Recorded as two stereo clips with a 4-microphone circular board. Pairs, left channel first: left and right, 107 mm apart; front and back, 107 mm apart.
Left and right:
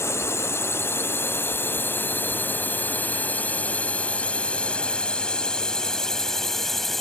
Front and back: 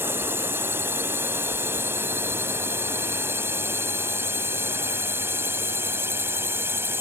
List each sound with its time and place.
0.0 s a drone: 130° left; by 7.0 s 175° left